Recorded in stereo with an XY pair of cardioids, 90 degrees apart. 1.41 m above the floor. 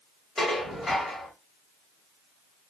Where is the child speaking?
I don't hear a child speaking.